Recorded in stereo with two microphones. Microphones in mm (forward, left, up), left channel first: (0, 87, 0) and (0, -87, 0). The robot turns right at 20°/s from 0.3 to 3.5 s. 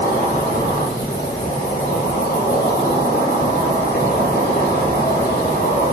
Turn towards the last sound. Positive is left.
turn(degrees=120)